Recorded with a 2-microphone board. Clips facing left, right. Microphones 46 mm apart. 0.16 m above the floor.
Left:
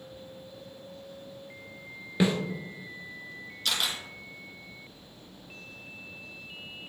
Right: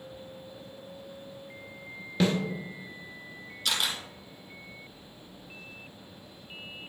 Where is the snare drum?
15° left (ahead or behind), 1.4 m.